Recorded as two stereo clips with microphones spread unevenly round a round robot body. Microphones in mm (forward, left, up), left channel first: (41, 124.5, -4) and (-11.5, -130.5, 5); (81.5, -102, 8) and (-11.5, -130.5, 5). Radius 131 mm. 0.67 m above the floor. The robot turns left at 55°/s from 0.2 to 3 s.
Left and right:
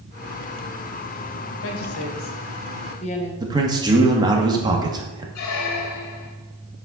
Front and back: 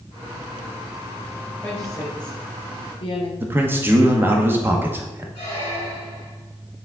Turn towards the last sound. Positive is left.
turn(degrees=70)